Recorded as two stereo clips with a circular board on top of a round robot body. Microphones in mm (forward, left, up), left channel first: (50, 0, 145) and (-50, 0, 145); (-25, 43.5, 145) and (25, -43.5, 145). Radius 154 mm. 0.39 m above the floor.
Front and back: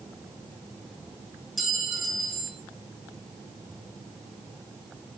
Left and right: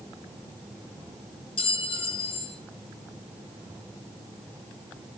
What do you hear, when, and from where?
1.6 s a clink: 90° left, 1.6 m